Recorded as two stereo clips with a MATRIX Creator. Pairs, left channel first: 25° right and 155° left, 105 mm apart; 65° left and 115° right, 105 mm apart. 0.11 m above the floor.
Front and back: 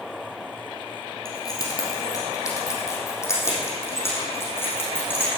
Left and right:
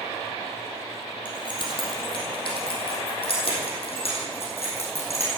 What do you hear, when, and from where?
1.2 s keys jangling: 30° left, 3 m; by 5.3 s 50° left, 5.5 m